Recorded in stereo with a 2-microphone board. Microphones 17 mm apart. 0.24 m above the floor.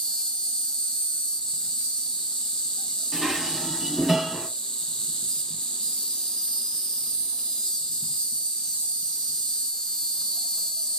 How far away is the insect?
About 0.8 m.